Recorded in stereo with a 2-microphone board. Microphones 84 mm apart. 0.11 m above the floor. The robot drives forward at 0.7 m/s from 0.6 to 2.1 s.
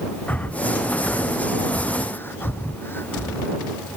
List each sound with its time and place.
0.3 s breathing: 20° left (ahead or behind); by 3.5 s 25° left (ahead or behind)